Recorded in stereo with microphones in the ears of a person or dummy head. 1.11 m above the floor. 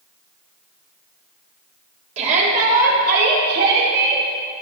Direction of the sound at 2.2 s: 40° right (ahead or behind).